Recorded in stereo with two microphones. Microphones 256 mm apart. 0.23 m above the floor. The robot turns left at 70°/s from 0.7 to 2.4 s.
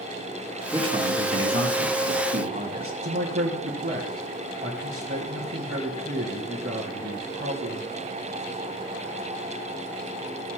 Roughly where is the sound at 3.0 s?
Right.